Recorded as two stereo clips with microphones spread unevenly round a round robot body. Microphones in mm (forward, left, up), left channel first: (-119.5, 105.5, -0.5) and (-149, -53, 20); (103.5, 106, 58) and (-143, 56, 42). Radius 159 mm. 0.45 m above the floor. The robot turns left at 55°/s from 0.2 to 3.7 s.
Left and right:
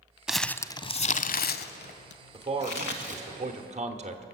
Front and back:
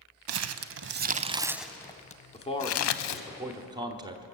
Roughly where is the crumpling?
Behind.